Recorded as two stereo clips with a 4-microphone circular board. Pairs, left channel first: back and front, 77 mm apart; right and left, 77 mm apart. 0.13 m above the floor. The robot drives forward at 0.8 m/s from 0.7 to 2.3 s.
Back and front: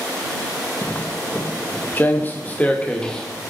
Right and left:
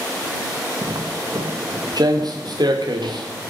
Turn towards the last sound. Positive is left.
turn(degrees=100)